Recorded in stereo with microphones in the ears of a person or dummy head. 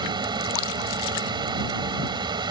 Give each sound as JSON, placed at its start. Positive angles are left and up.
{"t": 0.0, "sound": "a fan", "side_deg": -25}